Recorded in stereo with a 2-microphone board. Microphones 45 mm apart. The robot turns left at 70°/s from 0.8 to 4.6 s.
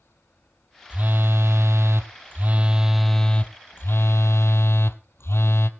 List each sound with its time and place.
0.9 s a phone buzzing: 30° right, 1.1 m; by 5.7 s 70° left, 1.1 m